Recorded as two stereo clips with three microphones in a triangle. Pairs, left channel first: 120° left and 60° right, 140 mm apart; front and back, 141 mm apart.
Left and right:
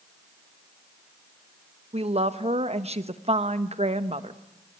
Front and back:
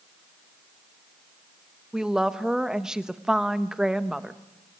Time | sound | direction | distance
1.9 | a woman speaking | 95° right | 1.1 m